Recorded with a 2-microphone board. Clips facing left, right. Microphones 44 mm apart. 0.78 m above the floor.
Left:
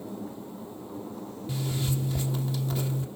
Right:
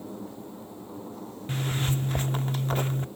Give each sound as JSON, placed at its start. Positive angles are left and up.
{"t": 1.5, "sound": "a zipper", "side_deg": -45, "distance_m": 0.8}